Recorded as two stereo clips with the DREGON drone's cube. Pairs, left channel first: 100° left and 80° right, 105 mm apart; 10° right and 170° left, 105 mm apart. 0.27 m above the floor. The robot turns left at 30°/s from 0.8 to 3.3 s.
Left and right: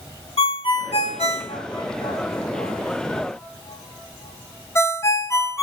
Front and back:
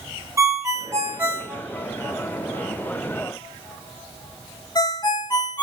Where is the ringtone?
110° left, 0.9 m; by 5.6 s 35° left, 0.9 m.